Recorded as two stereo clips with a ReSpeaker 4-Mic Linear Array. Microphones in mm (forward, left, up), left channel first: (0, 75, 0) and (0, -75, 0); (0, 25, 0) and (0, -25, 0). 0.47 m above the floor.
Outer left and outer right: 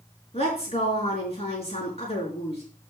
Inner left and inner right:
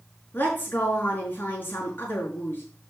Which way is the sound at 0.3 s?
45° left (ahead or behind).